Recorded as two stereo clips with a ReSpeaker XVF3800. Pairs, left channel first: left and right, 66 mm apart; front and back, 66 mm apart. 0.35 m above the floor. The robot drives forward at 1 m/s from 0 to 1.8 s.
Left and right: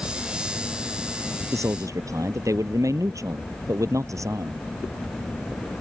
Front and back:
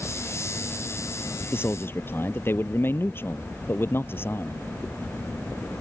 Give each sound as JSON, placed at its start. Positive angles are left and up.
{"t": 1.5, "sound": "a man speaking", "azimuth_deg": -55}